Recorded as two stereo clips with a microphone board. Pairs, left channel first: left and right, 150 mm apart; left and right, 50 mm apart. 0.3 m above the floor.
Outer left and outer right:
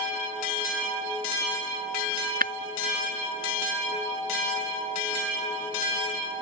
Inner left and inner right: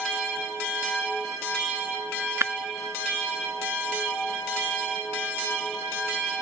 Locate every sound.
2.4 s breaking glass: 75° right (ahead or behind)